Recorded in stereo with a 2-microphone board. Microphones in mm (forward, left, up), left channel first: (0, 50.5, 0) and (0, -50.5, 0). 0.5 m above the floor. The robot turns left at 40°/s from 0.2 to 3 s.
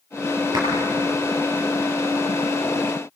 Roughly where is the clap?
Right.